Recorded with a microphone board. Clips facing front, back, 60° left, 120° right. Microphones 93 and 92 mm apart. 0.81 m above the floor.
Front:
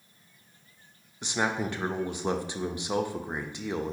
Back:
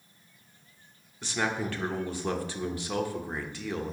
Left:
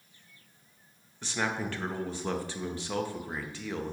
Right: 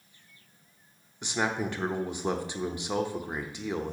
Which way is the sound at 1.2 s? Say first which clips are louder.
Front 1 dB, right 3 dB; 60° right.